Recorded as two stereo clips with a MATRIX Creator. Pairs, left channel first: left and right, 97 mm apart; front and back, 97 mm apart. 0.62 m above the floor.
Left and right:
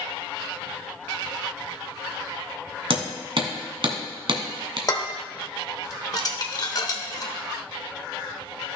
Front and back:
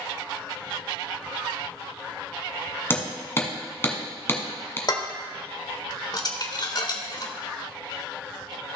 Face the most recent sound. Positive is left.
turn(degrees=45)